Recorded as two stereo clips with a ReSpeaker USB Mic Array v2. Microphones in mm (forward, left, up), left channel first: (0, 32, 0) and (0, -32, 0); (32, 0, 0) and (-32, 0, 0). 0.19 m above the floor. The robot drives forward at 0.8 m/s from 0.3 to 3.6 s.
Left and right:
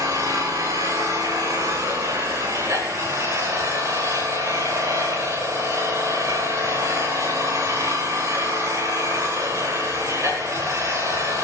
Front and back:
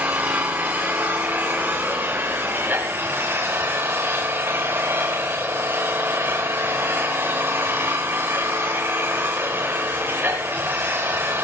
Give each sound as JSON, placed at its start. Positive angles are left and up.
{"t": 0.0, "sound": "an engine running", "azimuth_deg": -110, "distance_m": 9.5}